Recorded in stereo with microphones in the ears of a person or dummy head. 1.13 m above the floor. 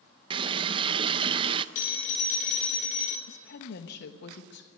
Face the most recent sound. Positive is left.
turn(degrees=55)  # may be behind; listen again after turning